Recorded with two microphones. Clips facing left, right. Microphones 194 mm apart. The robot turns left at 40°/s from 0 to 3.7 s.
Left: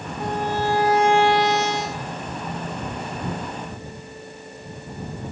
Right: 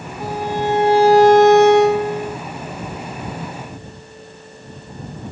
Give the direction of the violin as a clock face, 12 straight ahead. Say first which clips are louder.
Right 3 dB; 12 o'clock.